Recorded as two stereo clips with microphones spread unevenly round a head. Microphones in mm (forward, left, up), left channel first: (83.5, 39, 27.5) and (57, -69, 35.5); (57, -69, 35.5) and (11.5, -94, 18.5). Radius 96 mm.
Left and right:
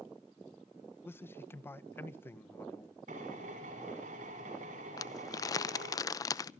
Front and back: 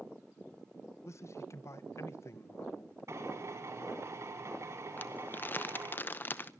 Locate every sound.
1.1 s a man speaking: 5° left, 1.2 m
3.1 s a drill: 120° right, 5.5 m
5.0 s crumpling: 25° left, 0.6 m